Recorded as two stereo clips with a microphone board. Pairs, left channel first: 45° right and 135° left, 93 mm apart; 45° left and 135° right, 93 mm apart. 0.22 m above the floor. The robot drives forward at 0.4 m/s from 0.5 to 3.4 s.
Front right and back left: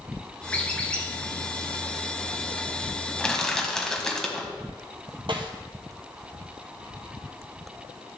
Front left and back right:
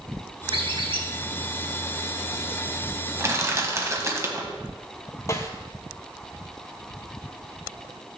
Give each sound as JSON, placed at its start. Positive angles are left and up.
{"t": 0.5, "sound": "a squeak", "azimuth_deg": -120, "distance_m": 2.0}
{"t": 3.2, "sound": "crushing", "azimuth_deg": -120, "distance_m": 1.3}
{"t": 5.3, "sound": "a snare drum", "azimuth_deg": 105, "distance_m": 1.2}